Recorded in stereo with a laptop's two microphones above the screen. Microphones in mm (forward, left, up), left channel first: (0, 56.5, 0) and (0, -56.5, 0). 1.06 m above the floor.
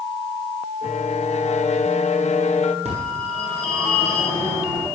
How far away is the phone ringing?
About 8 m.